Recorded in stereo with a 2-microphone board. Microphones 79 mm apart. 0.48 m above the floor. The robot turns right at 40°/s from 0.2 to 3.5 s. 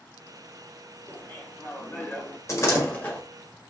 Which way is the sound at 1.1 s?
25° left (ahead or behind).